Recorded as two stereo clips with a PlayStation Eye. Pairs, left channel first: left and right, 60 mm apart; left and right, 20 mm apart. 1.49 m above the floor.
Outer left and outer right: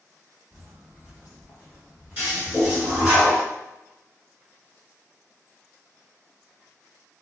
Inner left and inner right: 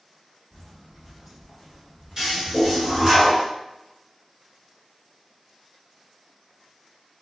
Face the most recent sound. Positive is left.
turn(degrees=-35)  # may be behind; listen again after turning